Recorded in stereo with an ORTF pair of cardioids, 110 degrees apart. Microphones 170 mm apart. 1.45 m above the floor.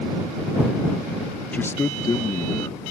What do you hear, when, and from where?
1.5 s a man speaking: 10° left; by 2.8 s 25° left